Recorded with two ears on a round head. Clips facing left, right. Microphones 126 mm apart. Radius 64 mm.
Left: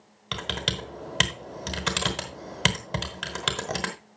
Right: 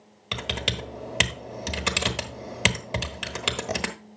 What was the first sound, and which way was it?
Typing on a keyboard, 10° right (ahead or behind).